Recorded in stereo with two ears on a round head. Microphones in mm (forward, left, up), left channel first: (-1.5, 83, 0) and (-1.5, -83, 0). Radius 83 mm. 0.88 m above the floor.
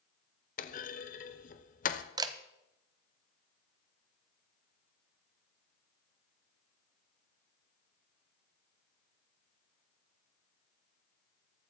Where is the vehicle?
I don't hear a vehicle.